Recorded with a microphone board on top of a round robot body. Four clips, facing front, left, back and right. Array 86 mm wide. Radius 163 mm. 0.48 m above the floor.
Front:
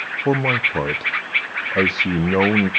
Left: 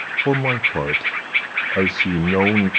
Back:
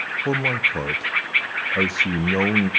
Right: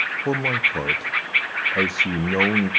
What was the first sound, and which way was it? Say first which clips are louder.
A man speaking: left 4 dB, front 4 dB; 40° left.